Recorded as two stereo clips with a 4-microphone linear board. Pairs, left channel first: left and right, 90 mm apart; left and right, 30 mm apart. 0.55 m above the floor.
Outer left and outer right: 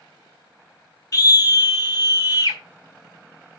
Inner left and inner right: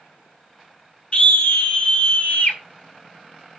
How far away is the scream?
About 1.6 m.